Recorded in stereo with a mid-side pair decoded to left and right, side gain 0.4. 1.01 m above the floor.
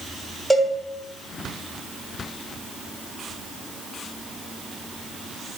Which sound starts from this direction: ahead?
A cowbell, at 0.5 s.